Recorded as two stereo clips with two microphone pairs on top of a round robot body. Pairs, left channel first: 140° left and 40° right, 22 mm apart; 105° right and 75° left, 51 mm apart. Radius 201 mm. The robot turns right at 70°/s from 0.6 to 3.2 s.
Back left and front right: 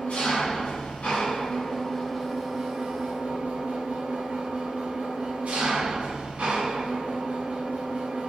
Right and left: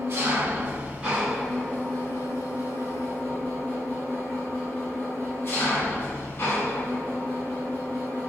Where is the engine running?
115° left, 1.6 m; by 8.3 s 65° right, 1.6 m.